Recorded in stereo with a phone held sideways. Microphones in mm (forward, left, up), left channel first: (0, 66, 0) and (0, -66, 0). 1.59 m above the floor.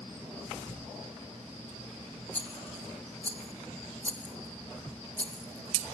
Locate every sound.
2.3 s a rattle: 10° left (ahead or behind), 0.9 m